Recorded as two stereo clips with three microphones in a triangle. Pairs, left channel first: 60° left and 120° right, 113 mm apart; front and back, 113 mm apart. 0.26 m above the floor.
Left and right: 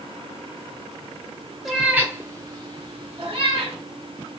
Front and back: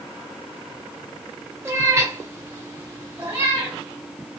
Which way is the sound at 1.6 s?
155° left.